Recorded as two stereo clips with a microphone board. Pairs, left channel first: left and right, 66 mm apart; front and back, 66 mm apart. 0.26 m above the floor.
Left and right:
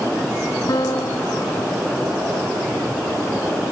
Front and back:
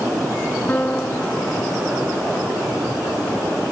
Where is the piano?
65° left.